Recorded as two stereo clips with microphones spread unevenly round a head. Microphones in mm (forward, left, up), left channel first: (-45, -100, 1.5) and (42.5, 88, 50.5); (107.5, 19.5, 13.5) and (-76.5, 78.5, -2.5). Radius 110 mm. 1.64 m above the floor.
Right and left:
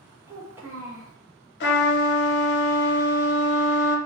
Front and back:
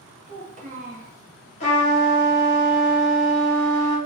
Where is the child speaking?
125° left, 0.7 m.